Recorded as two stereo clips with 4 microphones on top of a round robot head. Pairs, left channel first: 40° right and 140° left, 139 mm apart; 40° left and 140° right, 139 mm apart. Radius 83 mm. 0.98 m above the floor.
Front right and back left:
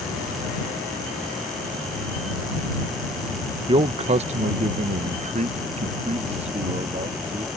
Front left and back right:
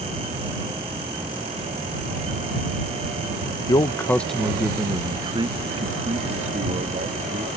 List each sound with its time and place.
3.7 s a man speaking: 95° left; by 7.5 s 175° right